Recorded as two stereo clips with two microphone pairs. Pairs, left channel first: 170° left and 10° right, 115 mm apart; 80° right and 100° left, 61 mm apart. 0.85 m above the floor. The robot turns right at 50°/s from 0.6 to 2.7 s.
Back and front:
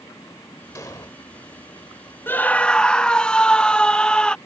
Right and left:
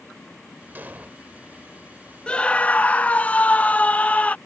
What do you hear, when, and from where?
0.8 s an explosion: 125° left; by 1.1 s 140° left
2.3 s a scream: 135° right; by 4.4 s 110° right